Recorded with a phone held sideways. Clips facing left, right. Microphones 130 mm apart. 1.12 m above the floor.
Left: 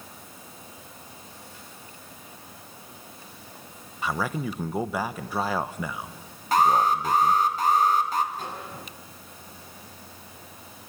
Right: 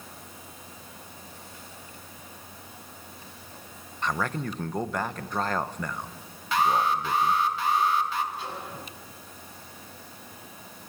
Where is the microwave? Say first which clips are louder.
Left 1 dB; 45° left (ahead or behind), 7 m.